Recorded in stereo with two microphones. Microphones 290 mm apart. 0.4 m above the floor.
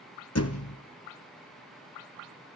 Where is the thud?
60° left (ahead or behind), 1.1 m.